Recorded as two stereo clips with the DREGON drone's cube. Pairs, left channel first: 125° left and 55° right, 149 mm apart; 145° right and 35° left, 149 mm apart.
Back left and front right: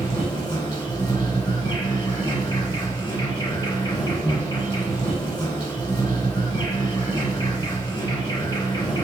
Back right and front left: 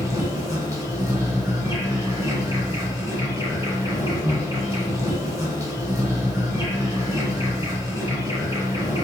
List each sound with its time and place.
0.0 s an insect: 80° left, 1.7 m